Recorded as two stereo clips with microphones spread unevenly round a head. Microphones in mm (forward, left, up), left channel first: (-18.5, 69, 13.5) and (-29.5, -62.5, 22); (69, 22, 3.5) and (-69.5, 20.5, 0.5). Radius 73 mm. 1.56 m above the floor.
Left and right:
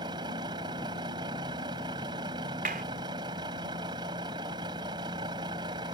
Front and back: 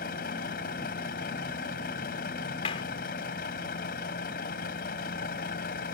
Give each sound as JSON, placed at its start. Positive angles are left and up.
{"t": 0.0, "sound": "a vehicle", "azimuth_deg": -35}
{"t": 2.6, "sound": "a clap", "azimuth_deg": -55}